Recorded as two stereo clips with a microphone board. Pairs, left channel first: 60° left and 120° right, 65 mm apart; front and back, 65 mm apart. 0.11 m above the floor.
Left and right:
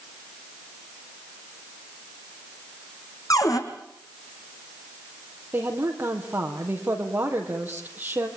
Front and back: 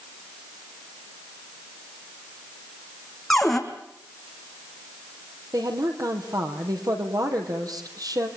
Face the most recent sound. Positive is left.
turn(degrees=180)